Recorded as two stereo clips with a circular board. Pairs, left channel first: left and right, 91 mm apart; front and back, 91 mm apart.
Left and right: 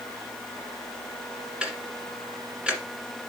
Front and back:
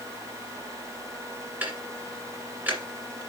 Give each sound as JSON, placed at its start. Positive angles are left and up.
{"t": 1.6, "sound": "ticking", "azimuth_deg": -150, "distance_m": 1.7}